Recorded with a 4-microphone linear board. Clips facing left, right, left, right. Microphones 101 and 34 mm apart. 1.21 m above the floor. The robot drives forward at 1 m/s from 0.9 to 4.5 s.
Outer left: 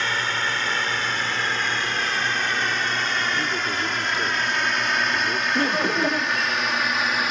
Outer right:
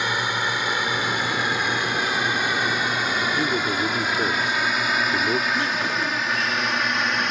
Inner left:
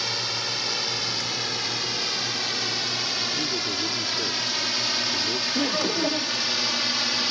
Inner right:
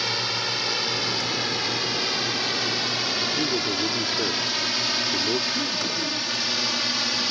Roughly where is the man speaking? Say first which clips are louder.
Outer right 3 dB, inner right 3 dB; centre.